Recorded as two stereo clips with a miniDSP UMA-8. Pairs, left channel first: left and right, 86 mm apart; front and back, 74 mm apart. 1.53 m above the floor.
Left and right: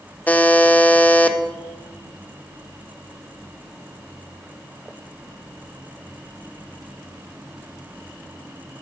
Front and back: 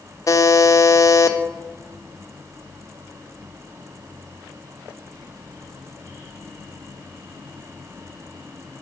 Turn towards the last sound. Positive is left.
turn(degrees=20)